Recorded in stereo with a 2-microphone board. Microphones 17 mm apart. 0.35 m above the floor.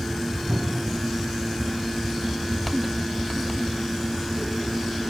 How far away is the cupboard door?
About 3 m.